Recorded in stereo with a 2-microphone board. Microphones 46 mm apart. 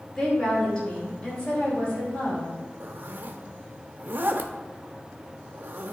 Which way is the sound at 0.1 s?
15° left (ahead or behind).